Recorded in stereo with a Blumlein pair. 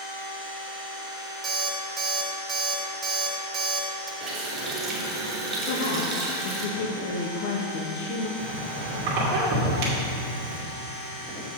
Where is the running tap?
20° right, 2.5 m.